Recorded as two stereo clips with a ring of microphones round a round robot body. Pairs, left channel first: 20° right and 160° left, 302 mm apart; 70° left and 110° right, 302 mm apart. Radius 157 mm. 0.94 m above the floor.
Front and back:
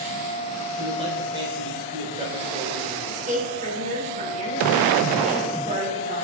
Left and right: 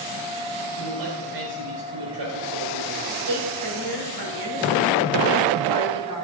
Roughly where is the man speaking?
Behind right.